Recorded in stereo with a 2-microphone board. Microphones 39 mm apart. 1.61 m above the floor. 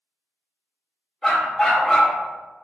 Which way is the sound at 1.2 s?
10° left (ahead or behind).